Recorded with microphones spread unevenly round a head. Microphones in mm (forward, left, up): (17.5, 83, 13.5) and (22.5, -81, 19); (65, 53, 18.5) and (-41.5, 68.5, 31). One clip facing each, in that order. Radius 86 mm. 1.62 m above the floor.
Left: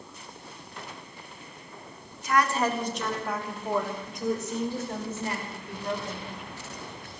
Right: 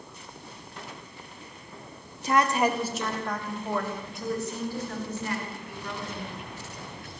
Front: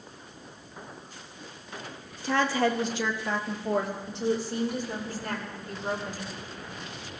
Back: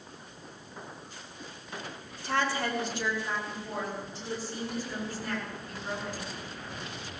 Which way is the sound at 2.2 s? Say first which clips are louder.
Right 2 dB, front 5 dB; 30° right.